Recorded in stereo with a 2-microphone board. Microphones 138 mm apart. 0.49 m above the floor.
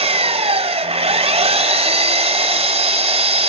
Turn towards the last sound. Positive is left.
turn(degrees=-45)  # may be behind; listen again after turning